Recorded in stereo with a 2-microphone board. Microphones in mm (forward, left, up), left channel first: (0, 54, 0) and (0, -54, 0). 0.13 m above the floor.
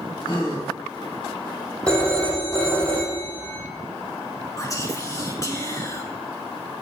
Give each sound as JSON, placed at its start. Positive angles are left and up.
{"t": 0.2, "sound": "a gasp", "side_deg": 40, "distance_m": 3.5}
{"t": 1.9, "sound": "a phone ringing", "side_deg": 10, "distance_m": 2.5}
{"t": 4.6, "sound": "whispering", "side_deg": 30, "distance_m": 1.5}